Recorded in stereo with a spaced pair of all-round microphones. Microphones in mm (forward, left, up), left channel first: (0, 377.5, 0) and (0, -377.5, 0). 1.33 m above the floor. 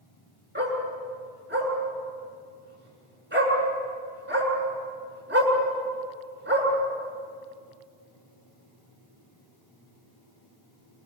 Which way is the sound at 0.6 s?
15° right (ahead or behind).